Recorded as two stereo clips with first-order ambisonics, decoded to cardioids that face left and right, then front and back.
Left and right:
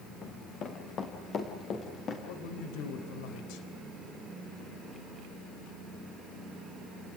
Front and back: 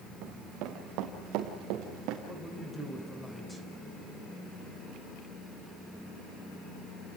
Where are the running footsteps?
145° left, 3 m; by 2.2 s 150° left, 4.5 m.